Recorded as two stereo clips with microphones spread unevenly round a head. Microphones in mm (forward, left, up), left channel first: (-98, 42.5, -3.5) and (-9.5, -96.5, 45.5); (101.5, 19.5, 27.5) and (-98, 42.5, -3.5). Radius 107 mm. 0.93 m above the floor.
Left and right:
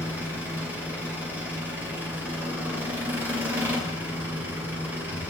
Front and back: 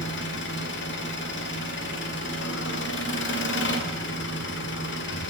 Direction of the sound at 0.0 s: 25° left.